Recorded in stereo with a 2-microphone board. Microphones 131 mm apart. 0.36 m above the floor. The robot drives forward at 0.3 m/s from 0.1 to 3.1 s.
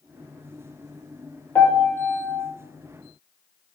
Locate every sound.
1.6 s a piano: 15° left (ahead or behind), 1.4 m